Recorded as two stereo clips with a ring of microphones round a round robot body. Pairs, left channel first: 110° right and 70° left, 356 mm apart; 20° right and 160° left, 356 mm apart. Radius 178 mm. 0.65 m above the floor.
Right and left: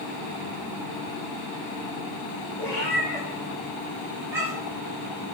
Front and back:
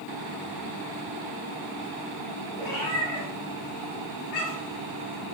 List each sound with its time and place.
2.6 s a cat meowing: 30° right, 5 m; by 4.8 s 15° right, 6 m